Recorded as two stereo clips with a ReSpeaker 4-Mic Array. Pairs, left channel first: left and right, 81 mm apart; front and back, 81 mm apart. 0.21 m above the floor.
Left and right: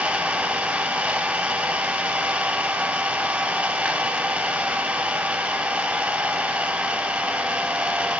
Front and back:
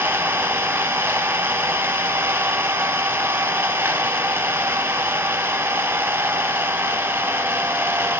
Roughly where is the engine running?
Behind right.